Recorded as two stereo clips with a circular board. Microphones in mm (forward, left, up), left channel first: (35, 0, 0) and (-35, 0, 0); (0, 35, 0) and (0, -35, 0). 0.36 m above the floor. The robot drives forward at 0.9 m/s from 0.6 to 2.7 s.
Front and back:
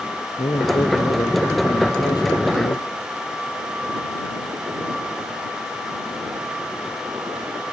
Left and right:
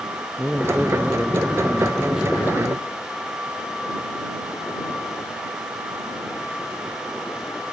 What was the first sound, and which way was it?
A man speaking, 10° right.